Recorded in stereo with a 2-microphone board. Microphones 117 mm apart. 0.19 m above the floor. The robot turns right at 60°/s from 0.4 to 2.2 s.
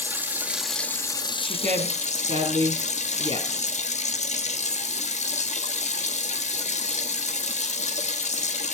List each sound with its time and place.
0.0 s running water: 15° right, 1.2 m; by 8.7 s 95° left, 1.2 m
1.4 s a woman speaking: 65° right (ahead or behind), 4 m; by 3.7 s 60° right (ahead or behind), 4 m